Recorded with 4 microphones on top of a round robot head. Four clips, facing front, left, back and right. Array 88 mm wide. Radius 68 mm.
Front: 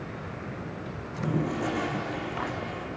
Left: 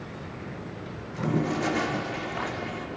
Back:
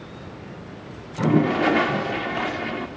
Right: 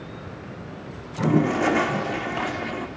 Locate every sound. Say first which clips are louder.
1.2 s a toilet flushing: right 6 dB, back 10 dB; 150° right, 1.0 m